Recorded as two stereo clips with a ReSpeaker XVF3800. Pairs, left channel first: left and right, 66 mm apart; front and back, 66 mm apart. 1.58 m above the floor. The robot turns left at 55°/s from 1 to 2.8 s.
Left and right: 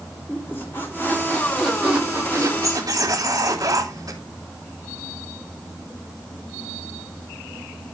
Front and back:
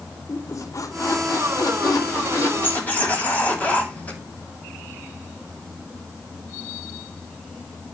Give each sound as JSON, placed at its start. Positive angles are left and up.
{"t": 0.3, "sound": "a squeak", "azimuth_deg": 35, "distance_m": 3.5}